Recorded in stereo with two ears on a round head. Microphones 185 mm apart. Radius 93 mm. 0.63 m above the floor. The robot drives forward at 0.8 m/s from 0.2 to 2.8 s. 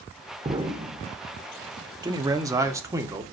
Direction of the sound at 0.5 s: 25° right (ahead or behind).